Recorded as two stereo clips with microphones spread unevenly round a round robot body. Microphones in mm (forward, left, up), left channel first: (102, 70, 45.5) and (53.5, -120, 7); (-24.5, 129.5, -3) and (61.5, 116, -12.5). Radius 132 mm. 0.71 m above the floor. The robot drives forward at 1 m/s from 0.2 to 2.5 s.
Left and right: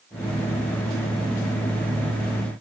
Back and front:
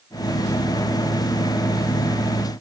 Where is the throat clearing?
No throat clearing in this recording.